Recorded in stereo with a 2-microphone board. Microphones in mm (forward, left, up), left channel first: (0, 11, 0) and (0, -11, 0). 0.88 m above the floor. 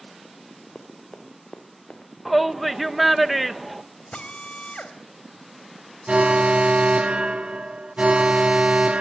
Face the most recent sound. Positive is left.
turn(degrees=-65)  # may be behind; listen again after turning